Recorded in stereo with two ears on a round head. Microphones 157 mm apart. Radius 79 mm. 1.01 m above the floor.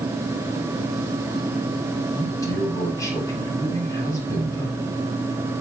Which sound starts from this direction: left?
A man speaking, at 2.1 s.